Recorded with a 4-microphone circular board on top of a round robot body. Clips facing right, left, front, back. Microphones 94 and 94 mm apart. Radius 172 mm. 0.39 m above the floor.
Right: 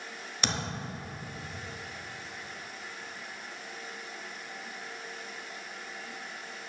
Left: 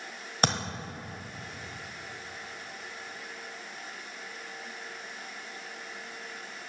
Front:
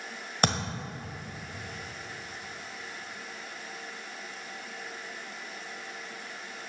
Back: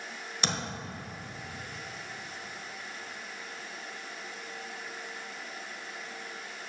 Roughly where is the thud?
Ahead left.